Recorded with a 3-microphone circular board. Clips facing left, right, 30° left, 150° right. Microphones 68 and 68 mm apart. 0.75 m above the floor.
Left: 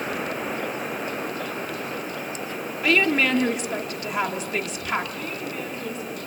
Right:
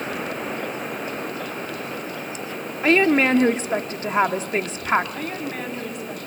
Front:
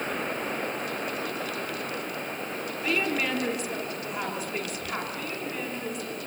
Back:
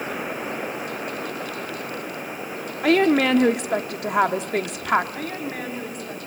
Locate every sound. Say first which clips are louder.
2.8 s a woman speaking: right 4 dB, back 11 dB; 145° right, 1.2 m
5.2 s a woman speaking: right 2 dB, back 4 dB; 110° right, 6 m